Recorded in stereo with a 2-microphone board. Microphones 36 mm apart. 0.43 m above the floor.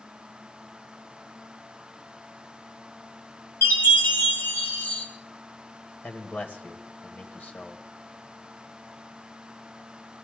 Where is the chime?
70° left (ahead or behind), 3.5 m.